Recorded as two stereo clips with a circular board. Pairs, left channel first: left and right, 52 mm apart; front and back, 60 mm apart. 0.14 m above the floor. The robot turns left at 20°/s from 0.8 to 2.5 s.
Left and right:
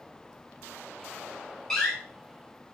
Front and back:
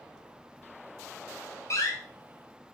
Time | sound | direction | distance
1.7 | a door slam | 10° left | 1.3 m